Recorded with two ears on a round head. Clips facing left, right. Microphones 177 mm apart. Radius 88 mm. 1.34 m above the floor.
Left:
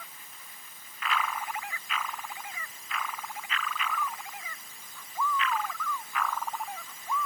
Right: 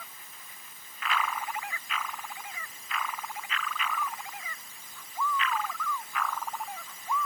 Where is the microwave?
I don't hear a microwave.